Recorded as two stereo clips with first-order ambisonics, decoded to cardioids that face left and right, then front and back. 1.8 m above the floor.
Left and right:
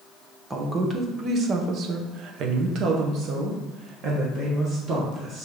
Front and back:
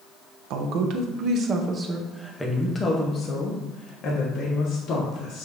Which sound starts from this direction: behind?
A woman speaking, at 0.5 s.